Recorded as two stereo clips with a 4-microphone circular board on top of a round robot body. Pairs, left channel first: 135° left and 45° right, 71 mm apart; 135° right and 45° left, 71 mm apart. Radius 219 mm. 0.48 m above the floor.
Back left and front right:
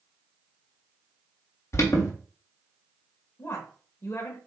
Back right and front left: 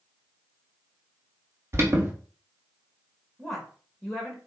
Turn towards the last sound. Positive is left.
turn(degrees=135)